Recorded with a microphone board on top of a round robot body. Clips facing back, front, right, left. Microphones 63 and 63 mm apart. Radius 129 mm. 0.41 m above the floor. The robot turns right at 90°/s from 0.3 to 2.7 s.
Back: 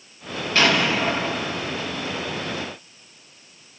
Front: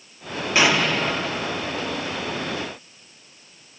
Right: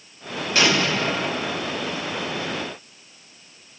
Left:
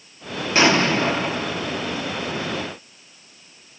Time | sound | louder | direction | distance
0.6 | an explosion | even, left 3 dB | 65° left | 1.1 m